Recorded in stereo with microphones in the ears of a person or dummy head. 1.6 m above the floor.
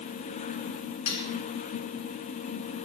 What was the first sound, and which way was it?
Cutlery clinking, 60° left (ahead or behind).